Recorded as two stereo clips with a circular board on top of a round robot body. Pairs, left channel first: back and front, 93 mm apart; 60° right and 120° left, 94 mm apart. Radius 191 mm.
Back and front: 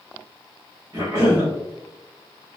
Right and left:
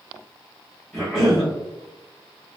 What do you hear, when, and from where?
0.9 s a cough: 35° left, 1.2 m